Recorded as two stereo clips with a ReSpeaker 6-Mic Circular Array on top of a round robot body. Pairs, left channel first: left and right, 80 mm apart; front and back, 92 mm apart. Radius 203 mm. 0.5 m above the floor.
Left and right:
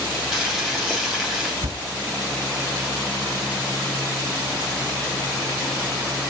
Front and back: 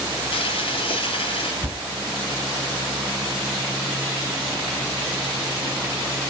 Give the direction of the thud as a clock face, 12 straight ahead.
4 o'clock.